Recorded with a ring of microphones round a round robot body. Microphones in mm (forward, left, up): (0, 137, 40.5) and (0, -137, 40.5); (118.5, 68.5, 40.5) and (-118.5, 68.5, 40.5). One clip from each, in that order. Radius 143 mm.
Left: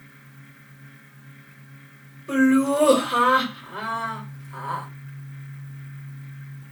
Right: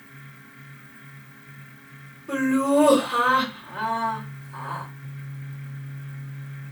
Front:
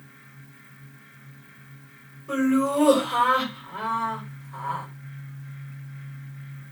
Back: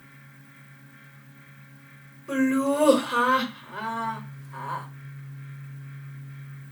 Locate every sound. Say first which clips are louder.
2.3 s laughter: left 2 dB, front 1 dB; 140° left, 1.5 m